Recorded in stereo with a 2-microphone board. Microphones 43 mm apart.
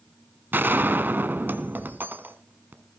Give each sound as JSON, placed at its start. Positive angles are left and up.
{"t": 0.5, "sound": "a gunshot", "side_deg": -50, "distance_m": 1.2}